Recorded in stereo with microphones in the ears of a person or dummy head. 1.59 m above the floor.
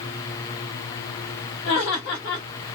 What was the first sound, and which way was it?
Laughter, 60° left (ahead or behind).